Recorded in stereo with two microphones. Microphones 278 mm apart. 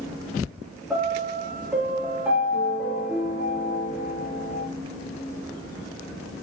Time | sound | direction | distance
0.9 | a piano | 5° right (ahead or behind) | 7.5 m